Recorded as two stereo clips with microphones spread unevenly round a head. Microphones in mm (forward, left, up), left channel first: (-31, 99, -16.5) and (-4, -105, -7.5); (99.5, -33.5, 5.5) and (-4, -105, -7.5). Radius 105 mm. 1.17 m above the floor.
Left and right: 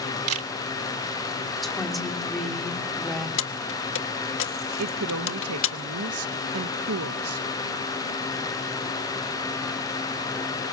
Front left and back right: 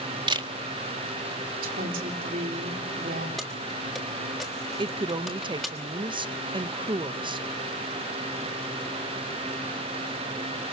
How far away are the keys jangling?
About 1.2 m.